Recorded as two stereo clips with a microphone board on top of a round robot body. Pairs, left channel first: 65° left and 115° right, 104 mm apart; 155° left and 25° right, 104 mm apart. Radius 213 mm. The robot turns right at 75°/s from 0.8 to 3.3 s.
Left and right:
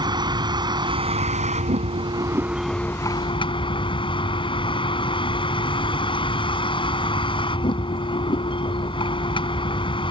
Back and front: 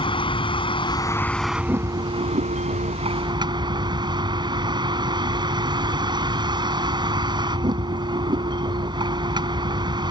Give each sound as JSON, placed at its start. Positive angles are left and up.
{"t": 0.0, "sound": "a vehicle", "azimuth_deg": -165}